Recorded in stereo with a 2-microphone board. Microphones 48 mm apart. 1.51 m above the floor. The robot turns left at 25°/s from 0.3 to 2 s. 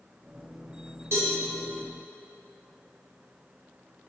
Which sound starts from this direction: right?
A cowbell, at 1.1 s.